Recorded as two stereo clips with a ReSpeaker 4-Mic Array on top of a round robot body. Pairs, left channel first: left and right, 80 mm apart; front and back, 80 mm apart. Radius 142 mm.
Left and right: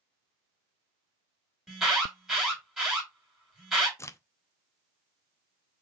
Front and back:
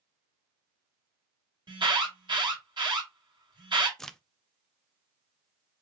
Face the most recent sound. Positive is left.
turn(degrees=80)